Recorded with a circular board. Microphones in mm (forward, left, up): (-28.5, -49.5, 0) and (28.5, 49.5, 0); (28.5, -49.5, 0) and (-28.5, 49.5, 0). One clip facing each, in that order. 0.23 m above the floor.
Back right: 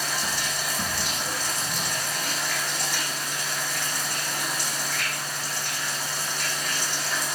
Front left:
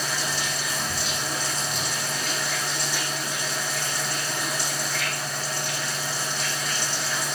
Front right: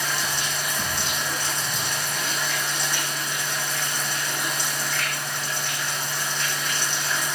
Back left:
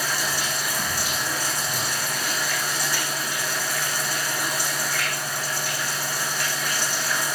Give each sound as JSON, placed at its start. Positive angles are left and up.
{"t": 0.0, "sound": "running water", "azimuth_deg": -160, "distance_m": 6.0}